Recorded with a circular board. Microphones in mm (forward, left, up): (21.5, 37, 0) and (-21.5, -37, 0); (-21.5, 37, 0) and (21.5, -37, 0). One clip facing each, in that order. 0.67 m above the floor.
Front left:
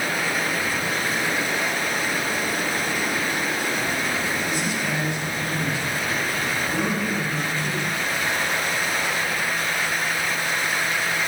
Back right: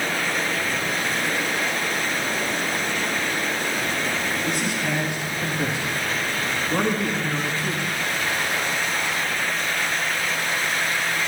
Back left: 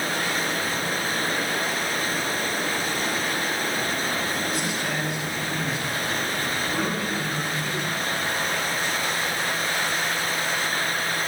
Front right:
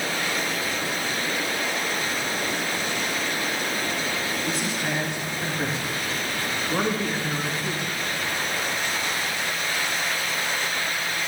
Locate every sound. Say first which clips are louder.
4.5 s a man speaking: back right 1 dB, even; 115° right, 5 m